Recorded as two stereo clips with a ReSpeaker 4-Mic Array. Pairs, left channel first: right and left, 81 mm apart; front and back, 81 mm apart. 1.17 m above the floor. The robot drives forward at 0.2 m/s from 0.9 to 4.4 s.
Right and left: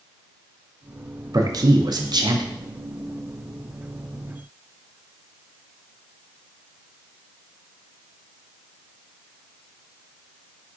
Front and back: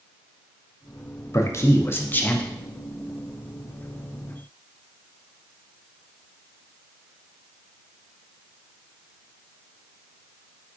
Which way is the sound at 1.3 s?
50° left.